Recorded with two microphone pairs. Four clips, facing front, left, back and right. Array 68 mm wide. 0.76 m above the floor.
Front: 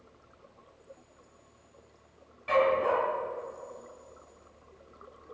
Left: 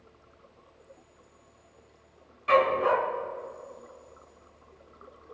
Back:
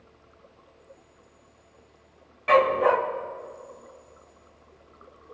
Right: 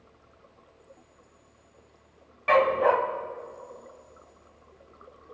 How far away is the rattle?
I don't hear a rattle.